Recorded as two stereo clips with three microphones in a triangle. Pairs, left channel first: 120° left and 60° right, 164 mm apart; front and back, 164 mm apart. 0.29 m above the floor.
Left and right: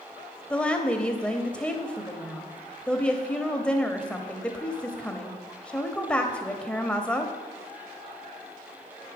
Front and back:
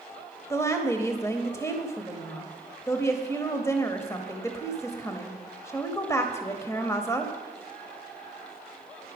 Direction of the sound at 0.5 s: 45° left.